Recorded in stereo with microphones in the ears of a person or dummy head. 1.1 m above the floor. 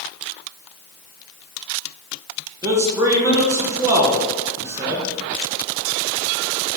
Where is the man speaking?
15° right (ahead or behind), 0.6 m.